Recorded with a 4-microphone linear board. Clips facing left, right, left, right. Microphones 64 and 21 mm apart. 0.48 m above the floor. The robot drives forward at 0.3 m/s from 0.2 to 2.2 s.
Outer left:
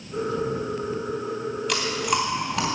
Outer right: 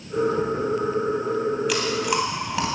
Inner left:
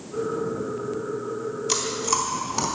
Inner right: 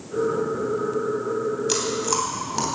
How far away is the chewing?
About 3 m.